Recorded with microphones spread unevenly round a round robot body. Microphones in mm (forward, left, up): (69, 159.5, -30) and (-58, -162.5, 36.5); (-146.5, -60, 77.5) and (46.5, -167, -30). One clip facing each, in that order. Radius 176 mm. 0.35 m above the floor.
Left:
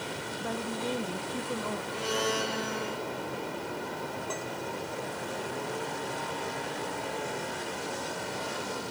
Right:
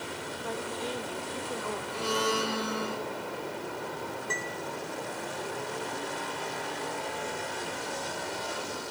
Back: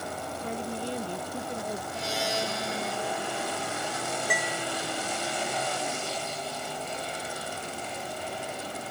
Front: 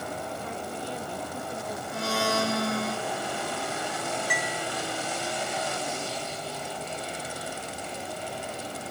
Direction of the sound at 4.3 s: 175° right.